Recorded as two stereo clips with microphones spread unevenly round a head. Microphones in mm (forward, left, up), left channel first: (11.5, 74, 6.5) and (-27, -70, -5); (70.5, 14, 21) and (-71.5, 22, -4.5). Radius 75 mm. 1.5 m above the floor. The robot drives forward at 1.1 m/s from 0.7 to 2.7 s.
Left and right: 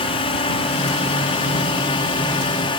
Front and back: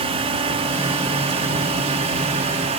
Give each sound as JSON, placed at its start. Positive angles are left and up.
{"t": 0.0, "sound": "a drone", "azimuth_deg": 130}